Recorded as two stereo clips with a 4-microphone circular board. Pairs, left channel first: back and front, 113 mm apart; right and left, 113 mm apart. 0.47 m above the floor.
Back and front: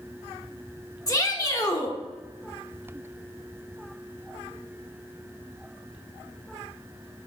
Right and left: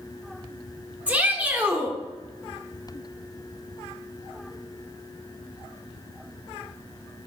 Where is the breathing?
No breathing in this recording.